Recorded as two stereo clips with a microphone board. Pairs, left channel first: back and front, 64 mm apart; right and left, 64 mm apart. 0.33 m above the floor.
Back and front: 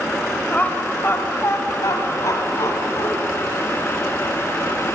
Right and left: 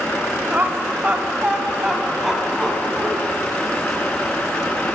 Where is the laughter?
125° left, 1.1 m; by 3.1 s straight behind, 2.5 m.